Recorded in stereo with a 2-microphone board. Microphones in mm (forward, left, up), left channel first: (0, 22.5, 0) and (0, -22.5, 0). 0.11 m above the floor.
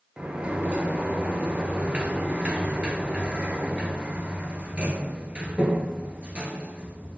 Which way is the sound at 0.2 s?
30° right (ahead or behind).